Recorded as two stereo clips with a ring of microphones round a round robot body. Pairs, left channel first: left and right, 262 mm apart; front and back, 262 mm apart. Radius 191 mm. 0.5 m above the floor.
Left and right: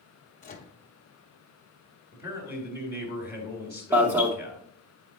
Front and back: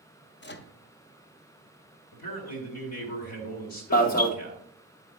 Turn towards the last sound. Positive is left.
turn(degrees=-15)